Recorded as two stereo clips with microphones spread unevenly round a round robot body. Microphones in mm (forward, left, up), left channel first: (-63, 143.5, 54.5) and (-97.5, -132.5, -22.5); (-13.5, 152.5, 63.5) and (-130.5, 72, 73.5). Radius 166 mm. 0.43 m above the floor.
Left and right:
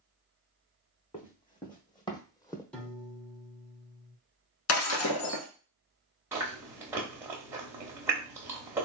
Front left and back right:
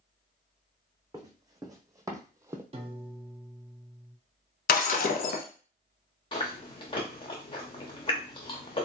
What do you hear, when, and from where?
1.1 s running footsteps: 150° left, 1.5 m
2.7 s a piano: 170° right, 0.9 m
4.7 s breaking glass: 50° left, 0.7 m
6.3 s chewing: 20° right, 0.5 m